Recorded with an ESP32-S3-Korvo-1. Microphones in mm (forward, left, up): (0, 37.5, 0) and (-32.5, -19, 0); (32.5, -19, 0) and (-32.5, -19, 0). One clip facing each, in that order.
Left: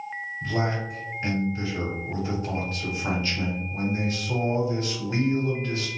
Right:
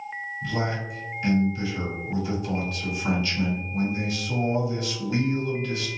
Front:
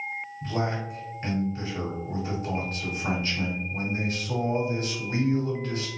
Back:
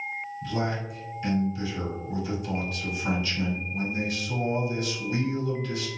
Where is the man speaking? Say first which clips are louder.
Left 2 dB, front 1 dB; 20° left, 1.5 m.